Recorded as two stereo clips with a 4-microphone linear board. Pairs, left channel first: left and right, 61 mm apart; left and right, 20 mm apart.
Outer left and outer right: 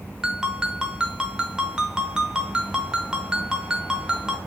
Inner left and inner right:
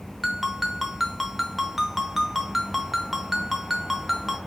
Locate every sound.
0.2 s a ringtone: 15° right (ahead or behind), 0.8 m